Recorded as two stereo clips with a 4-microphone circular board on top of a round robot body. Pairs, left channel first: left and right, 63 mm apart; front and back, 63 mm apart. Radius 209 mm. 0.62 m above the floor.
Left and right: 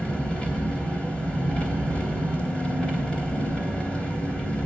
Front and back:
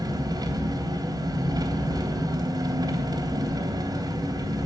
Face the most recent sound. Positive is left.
turn(degrees=165)